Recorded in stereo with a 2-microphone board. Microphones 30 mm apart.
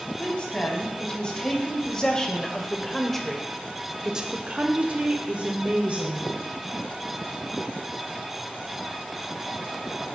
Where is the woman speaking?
35° left (ahead or behind), 2.5 m; by 6.3 s 60° right (ahead or behind), 1.6 m.